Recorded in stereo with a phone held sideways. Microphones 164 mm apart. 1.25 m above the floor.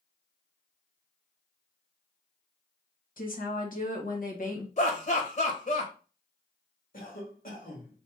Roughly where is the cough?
Left.